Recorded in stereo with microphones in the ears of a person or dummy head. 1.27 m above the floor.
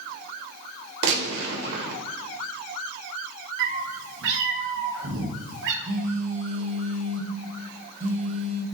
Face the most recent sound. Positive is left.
turn(degrees=-40)  # may be behind; listen again after turning